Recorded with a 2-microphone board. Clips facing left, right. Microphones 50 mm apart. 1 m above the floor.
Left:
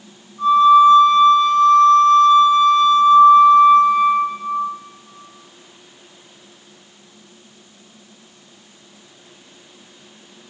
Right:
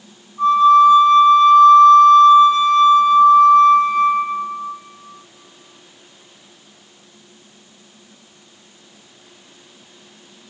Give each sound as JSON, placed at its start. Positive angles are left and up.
{"t": 0.4, "sound": "a flute", "side_deg": -65, "distance_m": 2.0}